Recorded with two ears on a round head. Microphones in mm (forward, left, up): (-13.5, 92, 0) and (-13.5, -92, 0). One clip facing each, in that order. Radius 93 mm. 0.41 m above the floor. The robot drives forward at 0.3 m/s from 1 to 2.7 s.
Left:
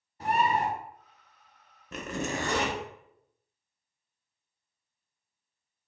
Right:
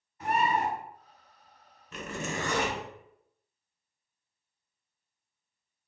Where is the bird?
30° left (ahead or behind), 0.7 m.